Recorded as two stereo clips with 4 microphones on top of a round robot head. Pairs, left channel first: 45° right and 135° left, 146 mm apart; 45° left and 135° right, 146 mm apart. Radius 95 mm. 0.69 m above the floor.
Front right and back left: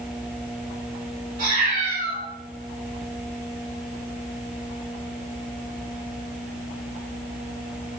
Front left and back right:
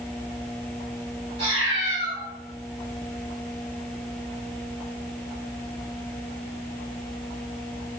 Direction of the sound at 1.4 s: 170° left.